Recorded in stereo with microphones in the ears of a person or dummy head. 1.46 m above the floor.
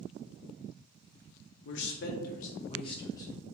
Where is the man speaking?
65° left (ahead or behind), 0.6 m; by 3.3 s 20° left (ahead or behind), 0.9 m.